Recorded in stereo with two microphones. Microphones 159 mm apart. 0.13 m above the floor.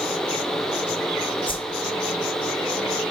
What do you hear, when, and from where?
1.5 s a whoosh: 35° left (ahead or behind), 1.5 m